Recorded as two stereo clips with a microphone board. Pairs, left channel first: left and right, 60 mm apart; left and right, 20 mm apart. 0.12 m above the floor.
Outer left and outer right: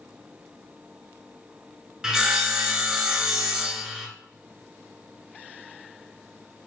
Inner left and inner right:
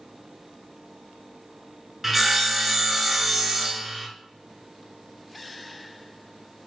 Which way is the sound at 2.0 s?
10° right (ahead or behind).